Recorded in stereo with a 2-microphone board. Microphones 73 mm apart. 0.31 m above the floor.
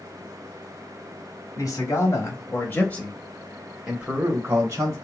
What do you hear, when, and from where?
1.6 s a man speaking: 50° left (ahead or behind), 1.5 m; by 5.0 s 40° right (ahead or behind), 1.3 m